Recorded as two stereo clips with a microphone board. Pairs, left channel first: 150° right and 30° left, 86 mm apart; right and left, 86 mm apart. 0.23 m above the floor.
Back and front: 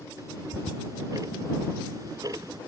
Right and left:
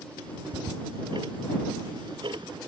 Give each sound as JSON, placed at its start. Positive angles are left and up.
{"t": 0.2, "sound": "ticking", "azimuth_deg": 75}